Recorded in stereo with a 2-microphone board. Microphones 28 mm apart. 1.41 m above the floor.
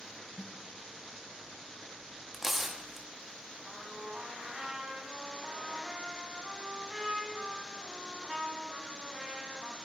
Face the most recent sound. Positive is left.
turn(degrees=-15)  # may be behind; listen again after turning